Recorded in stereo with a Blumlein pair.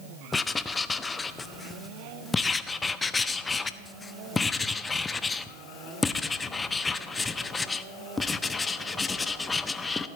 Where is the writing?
15° left, 0.6 m.